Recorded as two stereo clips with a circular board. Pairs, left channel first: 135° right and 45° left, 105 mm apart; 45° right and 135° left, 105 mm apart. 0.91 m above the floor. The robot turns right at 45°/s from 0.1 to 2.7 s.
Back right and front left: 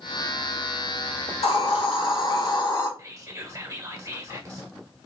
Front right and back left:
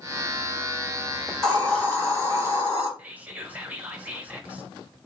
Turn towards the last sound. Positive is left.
turn(degrees=75)